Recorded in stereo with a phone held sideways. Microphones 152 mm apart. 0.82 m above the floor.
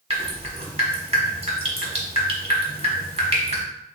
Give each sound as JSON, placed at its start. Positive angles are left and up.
{"t": 0.1, "sound": "dripping", "side_deg": -40, "distance_m": 1.2}